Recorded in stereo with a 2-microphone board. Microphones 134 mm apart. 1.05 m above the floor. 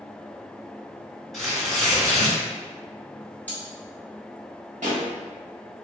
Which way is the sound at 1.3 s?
Centre (ahead or behind).